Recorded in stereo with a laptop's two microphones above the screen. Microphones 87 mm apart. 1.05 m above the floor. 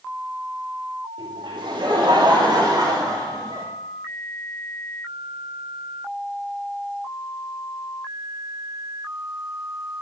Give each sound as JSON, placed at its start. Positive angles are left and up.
{"t": 1.2, "sound": "laughter", "side_deg": -70, "distance_m": 2.5}